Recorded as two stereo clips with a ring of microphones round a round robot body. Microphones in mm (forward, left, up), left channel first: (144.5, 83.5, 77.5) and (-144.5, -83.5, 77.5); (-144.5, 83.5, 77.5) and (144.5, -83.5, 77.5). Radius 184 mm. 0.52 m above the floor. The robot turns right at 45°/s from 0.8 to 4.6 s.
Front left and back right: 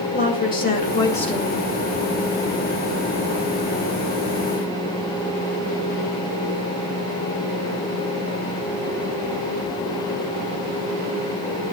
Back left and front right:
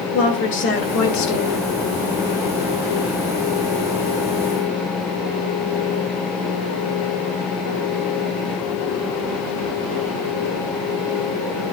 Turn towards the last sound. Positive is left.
turn(degrees=-95)